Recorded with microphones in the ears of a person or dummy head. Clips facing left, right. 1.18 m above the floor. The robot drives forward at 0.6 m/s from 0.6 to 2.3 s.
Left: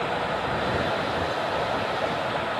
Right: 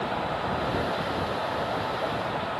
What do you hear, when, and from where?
Only background noise.